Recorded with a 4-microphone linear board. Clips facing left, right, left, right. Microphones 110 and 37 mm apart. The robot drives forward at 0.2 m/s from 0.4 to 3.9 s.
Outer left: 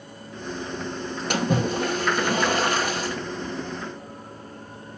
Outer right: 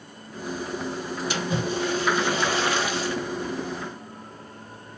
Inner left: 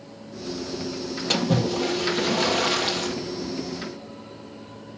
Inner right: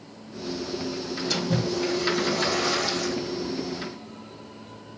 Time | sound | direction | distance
1.3 | a splash | 55° left (ahead or behind) | 2.0 m